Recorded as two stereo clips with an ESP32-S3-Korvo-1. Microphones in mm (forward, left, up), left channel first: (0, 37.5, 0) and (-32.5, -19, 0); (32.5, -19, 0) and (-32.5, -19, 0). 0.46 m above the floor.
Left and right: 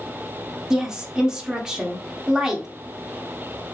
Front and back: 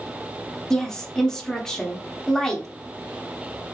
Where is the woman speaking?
65° right, 0.7 m.